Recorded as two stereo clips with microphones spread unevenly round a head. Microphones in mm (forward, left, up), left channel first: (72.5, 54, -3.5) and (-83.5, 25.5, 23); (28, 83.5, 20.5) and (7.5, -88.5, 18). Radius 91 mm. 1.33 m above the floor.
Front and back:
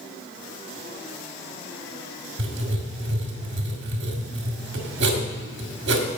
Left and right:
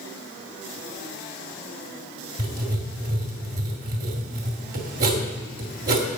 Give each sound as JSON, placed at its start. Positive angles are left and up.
{"t": 2.4, "sound": "writing", "azimuth_deg": -145, "distance_m": 2.0}